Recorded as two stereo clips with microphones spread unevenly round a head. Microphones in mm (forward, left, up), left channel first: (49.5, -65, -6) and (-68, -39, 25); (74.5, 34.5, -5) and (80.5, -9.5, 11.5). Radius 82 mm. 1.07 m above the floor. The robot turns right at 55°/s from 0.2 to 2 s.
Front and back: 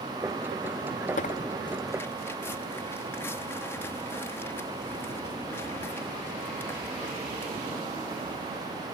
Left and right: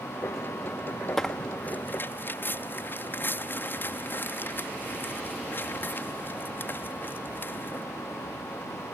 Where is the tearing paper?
15° left; by 7.9 s 65° left.